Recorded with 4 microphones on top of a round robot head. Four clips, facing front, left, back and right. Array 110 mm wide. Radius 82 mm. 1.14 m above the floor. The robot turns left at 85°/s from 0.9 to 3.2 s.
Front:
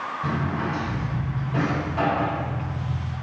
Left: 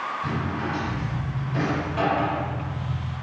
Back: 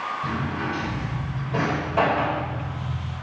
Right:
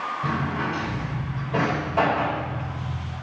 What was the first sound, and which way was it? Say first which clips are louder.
A drawer: right 2 dB, front 1 dB; 55° right.